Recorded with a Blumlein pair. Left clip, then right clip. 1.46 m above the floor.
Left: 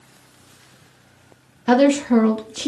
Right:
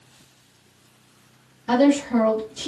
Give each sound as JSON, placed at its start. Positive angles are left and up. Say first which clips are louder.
{"t": 1.7, "sound": "a woman speaking", "louder": "left 3 dB", "azimuth_deg": 40, "distance_m": 0.5}